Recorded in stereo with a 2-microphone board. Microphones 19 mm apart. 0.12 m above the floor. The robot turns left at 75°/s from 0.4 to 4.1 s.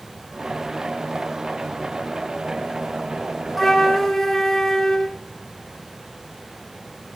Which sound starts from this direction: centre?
A flute, at 3.6 s.